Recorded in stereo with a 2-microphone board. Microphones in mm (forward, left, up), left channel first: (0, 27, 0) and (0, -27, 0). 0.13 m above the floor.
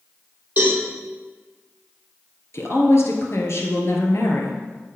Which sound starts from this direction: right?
A cowbell, at 0.6 s.